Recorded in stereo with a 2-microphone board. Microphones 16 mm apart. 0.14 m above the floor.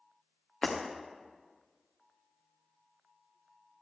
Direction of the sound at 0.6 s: 60° left (ahead or behind).